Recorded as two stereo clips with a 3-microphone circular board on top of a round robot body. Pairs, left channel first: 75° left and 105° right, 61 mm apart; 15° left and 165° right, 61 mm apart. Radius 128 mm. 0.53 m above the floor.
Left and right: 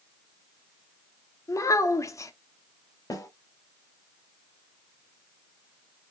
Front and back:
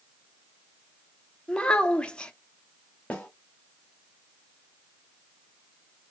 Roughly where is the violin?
No violin in this recording.